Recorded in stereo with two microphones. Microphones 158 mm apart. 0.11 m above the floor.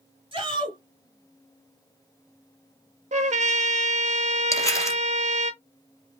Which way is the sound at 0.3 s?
30° right (ahead or behind).